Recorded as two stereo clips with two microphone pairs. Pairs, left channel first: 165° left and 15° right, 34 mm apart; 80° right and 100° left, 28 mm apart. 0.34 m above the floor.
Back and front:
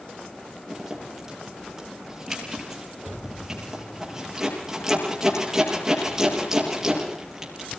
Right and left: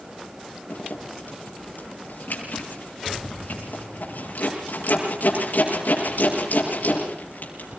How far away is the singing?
I don't hear singing.